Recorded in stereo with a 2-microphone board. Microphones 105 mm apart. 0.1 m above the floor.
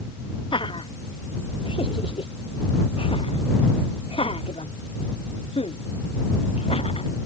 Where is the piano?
No piano in this recording.